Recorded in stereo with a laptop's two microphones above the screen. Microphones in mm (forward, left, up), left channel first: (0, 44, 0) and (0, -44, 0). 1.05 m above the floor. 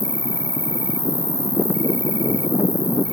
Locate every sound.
0.0 s an insect: 70° left (ahead or behind)